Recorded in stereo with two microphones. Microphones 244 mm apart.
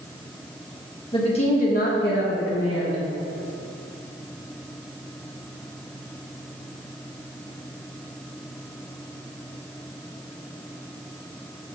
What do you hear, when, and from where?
1.1 s a woman speaking: 20° left (ahead or behind), 1.5 m; by 3.0 s 70° left (ahead or behind), 1.4 m